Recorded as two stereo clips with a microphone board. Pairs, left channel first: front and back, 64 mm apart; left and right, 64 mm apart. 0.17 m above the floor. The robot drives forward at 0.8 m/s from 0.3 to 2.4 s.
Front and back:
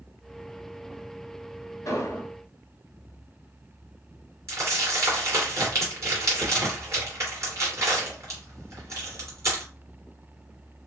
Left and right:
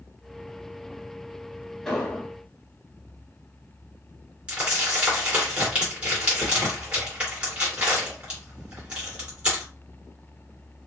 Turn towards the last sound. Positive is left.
turn(degrees=-155)